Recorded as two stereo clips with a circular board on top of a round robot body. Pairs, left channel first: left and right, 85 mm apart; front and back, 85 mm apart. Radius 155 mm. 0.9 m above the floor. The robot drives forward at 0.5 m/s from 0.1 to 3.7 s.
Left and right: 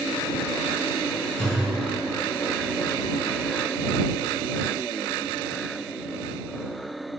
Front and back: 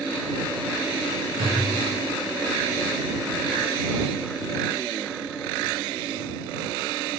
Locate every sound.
1.4 s a thud: 155° left, 2.5 m